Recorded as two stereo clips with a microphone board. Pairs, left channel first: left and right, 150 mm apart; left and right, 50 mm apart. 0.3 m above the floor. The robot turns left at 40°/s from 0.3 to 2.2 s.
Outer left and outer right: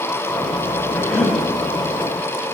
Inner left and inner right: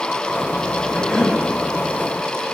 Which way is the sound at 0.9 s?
15° left (ahead or behind).